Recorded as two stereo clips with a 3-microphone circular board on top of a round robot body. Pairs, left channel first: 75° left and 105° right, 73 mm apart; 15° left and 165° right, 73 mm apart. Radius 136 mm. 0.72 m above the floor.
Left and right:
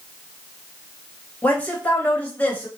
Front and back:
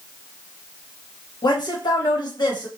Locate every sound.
1.4 s a woman speaking: 5° left, 1.5 m